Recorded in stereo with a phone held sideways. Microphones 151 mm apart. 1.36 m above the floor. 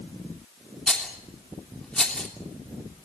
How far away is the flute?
I don't hear a flute.